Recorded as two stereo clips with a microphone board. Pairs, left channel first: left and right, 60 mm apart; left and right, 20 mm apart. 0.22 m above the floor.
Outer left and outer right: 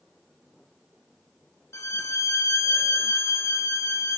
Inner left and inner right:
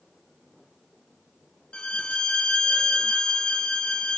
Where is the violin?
55° left (ahead or behind), 0.8 m.